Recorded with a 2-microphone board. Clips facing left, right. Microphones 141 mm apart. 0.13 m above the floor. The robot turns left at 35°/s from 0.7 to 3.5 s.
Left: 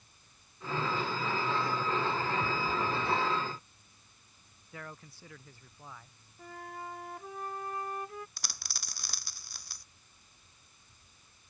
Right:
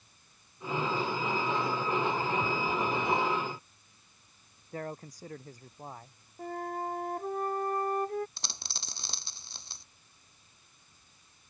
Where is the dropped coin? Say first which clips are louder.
Right 2 dB; 25° right (ahead or behind).